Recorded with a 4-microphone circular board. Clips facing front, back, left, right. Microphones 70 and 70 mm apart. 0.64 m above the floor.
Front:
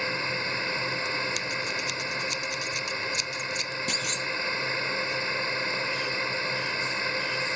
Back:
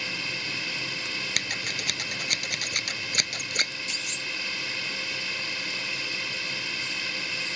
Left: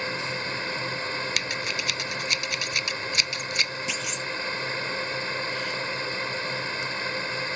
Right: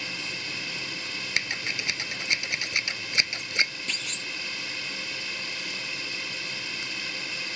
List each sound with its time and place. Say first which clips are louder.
0.0 s a drone: front 5 dB, left 6 dB; 50° left
1.4 s scissors: front 2 dB, left 2 dB; 155° right
3.9 s a clunk: front 5 dB, left 5 dB; 10° left